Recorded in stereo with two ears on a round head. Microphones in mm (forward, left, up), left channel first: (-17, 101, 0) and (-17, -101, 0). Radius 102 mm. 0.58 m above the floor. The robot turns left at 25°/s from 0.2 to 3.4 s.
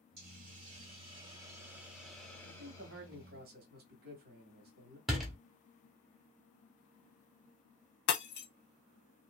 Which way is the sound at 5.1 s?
Centre (ahead or behind).